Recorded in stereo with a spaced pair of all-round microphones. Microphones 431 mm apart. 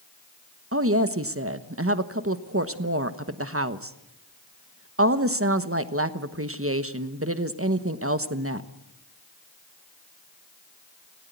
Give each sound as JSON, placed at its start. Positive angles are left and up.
{"t": 0.7, "sound": "a woman speaking", "side_deg": -30, "distance_m": 1.2}